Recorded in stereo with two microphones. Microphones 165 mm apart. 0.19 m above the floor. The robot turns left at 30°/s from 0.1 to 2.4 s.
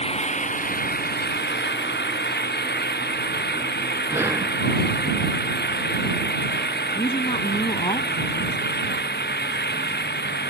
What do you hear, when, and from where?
0.0 s an engine running: 145° left; by 10.5 s 75° left
4.1 s breathing: 15° right (ahead or behind)
7.0 s a woman speaking: 35° left (ahead or behind)